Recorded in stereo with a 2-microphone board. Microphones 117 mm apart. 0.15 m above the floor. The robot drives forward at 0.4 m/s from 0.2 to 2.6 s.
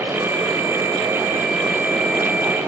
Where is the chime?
No chime in this recording.